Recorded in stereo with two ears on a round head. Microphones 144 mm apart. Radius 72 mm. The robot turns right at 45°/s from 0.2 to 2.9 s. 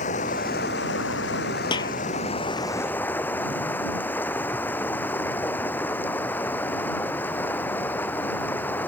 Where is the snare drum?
30° left (ahead or behind); by 2.0 s 20° left (ahead or behind).